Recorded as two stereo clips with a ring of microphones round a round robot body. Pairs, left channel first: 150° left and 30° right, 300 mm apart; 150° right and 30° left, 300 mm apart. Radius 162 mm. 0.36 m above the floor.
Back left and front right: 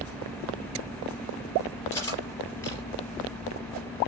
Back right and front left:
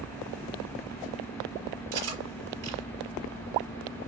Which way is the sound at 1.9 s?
70° left.